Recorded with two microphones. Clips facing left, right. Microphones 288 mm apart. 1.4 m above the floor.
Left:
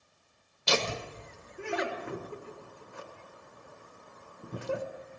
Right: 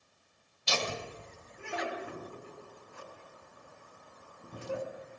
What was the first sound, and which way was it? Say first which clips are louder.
Laughter: left 5 dB; 70° left (ahead or behind).